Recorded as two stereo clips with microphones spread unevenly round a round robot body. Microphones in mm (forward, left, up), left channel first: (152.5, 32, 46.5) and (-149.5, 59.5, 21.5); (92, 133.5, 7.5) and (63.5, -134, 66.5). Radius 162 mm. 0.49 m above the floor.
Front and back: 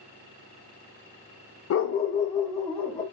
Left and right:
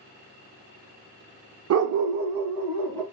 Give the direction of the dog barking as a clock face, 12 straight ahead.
2 o'clock.